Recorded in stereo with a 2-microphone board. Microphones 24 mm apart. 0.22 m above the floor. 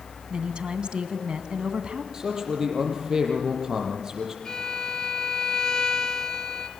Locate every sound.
0.3 s a woman speaking: 45° right (ahead or behind), 2 m
2.1 s a man speaking: 30° right (ahead or behind), 6 m
4.5 s a violin: 30° left (ahead or behind), 2 m